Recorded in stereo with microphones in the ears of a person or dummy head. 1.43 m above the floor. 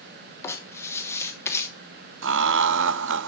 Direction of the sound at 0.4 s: 15° left (ahead or behind).